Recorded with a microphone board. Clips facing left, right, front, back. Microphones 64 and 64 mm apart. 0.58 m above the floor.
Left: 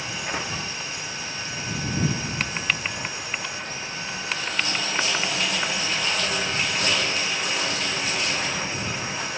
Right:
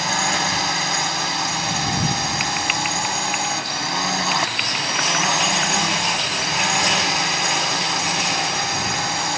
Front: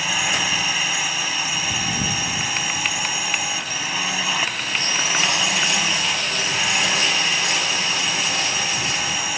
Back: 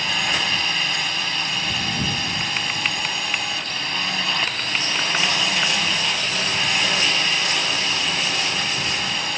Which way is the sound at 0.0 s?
85° right.